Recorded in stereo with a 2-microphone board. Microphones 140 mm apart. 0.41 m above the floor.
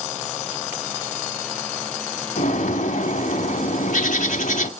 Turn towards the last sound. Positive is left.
turn(degrees=65)  # may be behind; listen again after turning